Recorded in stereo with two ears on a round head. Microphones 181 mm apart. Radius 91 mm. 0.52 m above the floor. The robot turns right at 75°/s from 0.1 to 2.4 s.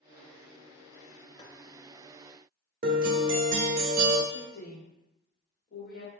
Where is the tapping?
20° left (ahead or behind), 0.8 m; by 1.6 s 35° left (ahead or behind), 0.8 m.